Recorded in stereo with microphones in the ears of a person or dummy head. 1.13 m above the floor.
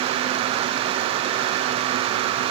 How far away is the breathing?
No breathing in this recording.